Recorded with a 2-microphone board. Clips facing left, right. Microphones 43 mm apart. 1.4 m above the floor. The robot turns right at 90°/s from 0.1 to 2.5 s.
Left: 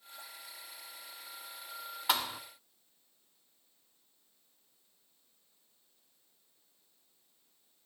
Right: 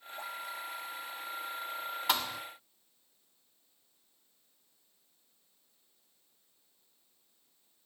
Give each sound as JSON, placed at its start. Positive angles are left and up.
{"t": 2.1, "sound": "a thud", "side_deg": 0, "distance_m": 0.9}